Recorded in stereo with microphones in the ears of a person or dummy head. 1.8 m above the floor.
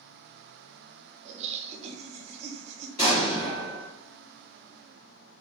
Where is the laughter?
35° right (ahead or behind), 0.5 m.